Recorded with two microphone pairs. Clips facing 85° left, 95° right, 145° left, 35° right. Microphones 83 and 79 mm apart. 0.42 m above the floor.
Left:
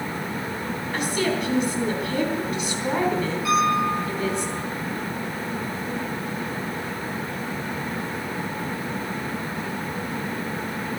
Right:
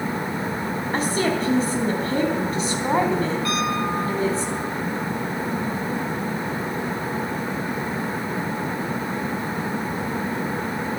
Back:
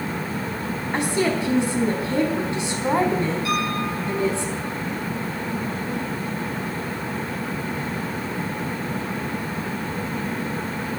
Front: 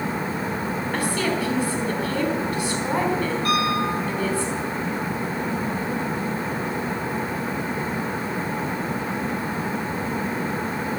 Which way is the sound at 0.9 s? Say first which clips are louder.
Right 2 dB, back 4 dB; 150° right.